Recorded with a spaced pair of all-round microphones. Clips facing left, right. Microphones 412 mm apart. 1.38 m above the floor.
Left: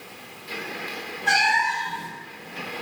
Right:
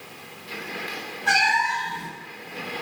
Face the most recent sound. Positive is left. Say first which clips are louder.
# even
turn(degrees=-25)  # may be behind; listen again after turning